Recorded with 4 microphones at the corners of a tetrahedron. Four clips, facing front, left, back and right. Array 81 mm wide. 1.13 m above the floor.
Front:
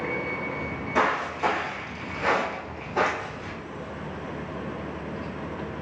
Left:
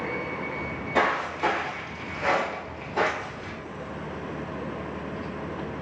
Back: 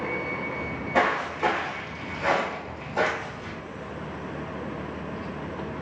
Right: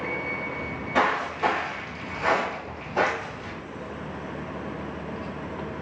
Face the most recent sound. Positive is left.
turn(degrees=0)